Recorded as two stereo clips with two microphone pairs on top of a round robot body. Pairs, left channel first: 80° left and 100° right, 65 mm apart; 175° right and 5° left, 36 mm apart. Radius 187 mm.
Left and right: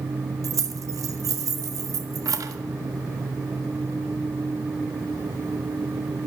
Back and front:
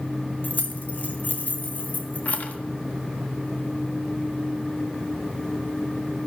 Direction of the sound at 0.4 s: 130° right.